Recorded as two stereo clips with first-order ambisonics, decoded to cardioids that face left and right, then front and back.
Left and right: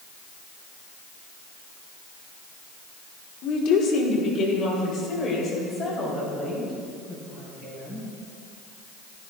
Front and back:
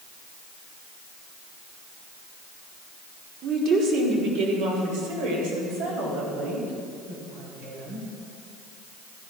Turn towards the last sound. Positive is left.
turn(degrees=160)